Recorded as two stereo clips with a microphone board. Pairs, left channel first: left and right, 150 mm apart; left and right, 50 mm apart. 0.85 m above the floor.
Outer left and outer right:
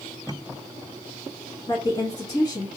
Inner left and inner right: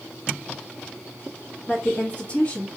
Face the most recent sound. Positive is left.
turn(degrees=35)  # may be behind; listen again after turning